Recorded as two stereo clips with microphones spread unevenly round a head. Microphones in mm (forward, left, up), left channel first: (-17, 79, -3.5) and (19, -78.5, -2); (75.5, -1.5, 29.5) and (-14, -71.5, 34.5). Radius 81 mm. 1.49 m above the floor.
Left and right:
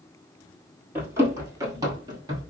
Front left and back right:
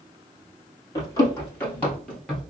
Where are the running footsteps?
10° right, 1.8 m; by 2.5 s 60° right, 1.6 m.